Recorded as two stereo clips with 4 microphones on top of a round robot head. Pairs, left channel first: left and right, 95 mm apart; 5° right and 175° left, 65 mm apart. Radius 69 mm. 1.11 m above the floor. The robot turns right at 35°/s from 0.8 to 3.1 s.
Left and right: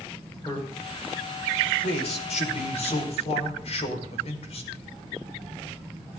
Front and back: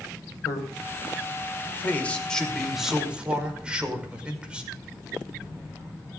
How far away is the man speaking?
About 5.5 m.